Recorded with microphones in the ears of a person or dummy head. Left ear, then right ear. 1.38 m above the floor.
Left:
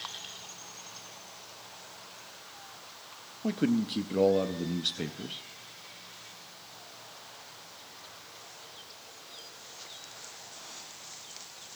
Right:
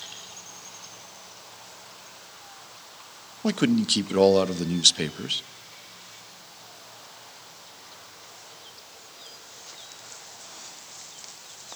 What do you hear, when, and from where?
3.4 s a man speaking: 35° right (ahead or behind), 0.6 m